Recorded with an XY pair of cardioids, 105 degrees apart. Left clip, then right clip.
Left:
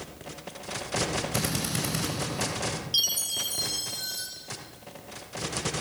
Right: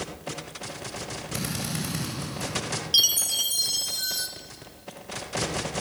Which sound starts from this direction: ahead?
A drill, at 1.3 s.